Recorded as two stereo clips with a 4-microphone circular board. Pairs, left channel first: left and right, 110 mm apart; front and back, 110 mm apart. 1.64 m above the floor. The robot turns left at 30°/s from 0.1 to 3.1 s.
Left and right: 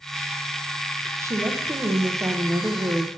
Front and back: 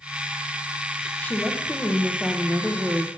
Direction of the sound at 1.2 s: 60° right.